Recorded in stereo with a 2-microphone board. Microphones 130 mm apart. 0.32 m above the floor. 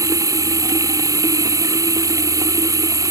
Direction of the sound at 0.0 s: 25° right (ahead or behind).